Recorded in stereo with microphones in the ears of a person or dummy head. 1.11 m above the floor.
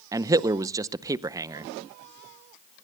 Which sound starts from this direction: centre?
A man speaking, at 0.1 s.